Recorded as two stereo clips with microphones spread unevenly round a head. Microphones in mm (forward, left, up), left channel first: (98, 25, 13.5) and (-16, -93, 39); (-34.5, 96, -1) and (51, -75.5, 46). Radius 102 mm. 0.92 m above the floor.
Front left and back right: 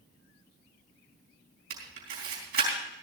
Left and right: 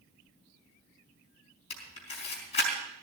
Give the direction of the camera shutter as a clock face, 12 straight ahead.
6 o'clock.